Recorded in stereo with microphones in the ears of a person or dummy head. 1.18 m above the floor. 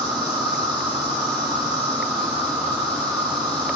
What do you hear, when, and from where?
0.0 s an insect: 25° right (ahead or behind), 3.5 m